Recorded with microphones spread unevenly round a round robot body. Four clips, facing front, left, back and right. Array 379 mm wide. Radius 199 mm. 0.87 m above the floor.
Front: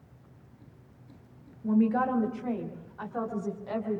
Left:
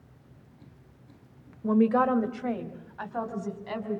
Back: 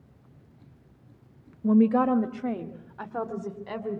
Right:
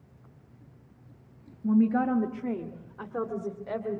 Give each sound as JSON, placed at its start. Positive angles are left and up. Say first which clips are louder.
{"t": 1.6, "sound": "a woman speaking", "louder": "left 1 dB, back 5 dB", "azimuth_deg": 175, "distance_m": 1.0}